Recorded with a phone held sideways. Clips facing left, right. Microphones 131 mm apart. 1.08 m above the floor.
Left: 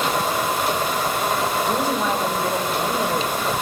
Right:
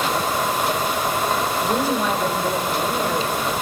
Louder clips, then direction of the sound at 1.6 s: Right 1 dB; 15° right (ahead or behind).